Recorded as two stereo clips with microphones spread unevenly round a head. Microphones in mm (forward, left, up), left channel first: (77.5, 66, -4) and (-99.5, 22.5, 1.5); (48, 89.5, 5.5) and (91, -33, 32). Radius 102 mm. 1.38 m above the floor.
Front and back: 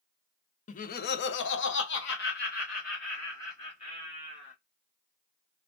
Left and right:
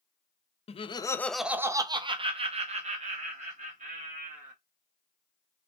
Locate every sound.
0.7 s laughter: 65° left, 0.6 m; by 4.5 s 50° right, 2 m